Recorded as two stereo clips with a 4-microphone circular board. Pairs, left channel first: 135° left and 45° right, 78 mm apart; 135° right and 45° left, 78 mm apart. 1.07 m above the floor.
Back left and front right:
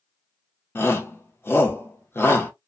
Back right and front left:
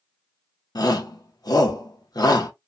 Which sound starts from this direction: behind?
A shout, at 0.8 s.